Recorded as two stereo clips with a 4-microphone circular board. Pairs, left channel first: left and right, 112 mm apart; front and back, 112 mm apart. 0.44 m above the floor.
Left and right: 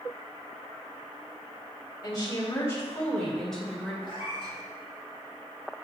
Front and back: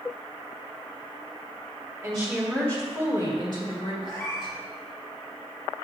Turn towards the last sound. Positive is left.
turn(degrees=50)